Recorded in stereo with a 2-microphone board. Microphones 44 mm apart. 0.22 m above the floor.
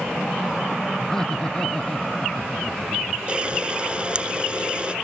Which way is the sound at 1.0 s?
10° left (ahead or behind).